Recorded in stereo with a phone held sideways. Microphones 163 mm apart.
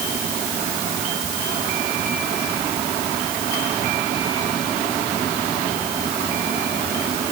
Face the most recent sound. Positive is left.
No sound to turn to.